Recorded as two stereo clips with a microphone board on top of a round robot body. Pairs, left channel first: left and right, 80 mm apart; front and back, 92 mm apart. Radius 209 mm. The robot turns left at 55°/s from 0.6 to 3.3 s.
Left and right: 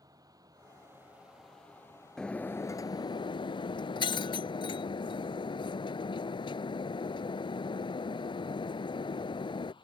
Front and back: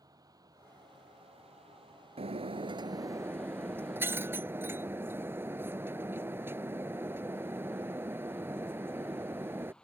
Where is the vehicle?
130° right; by 9.8 s 80° left.